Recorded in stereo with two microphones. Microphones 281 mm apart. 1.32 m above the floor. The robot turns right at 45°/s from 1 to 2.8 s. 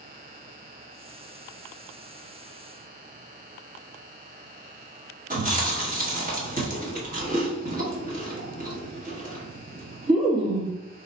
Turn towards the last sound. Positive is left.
turn(degrees=-30)  # may be behind; listen again after turning